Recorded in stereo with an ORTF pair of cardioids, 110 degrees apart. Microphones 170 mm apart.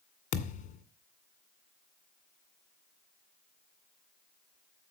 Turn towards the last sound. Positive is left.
turn(degrees=50)